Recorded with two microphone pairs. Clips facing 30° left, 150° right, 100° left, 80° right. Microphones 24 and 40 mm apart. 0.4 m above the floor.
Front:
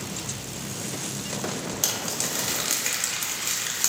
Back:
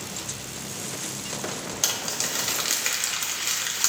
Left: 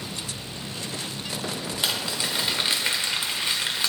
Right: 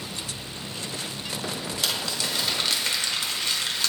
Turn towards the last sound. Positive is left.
turn(degrees=150)